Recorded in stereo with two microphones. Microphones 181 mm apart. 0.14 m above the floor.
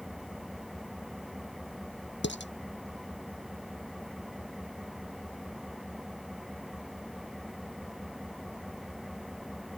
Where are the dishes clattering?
80° left.